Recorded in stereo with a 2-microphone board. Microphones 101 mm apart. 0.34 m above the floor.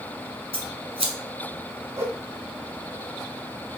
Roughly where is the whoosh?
Right.